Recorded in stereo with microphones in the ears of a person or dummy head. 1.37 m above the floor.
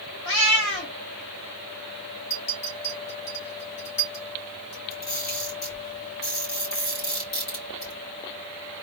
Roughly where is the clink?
Left.